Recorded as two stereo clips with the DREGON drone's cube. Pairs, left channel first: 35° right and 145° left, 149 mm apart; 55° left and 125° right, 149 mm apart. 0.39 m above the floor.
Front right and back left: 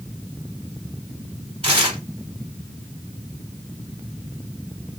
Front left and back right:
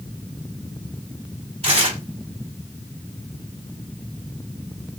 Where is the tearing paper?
170° right, 1.9 m.